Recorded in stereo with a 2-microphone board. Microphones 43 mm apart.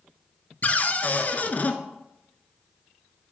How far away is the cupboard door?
About 0.5 m.